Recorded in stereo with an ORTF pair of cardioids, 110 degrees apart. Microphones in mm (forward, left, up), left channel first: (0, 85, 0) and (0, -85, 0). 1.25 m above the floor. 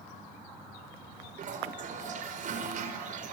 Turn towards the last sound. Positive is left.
turn(degrees=-50)